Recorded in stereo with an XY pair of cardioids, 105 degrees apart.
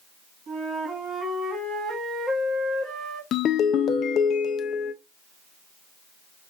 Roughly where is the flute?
Ahead right.